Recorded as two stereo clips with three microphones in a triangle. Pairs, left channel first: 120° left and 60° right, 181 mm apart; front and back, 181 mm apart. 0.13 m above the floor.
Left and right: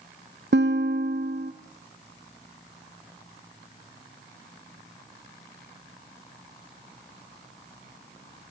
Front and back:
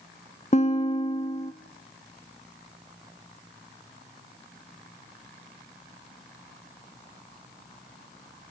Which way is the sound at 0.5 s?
50° right.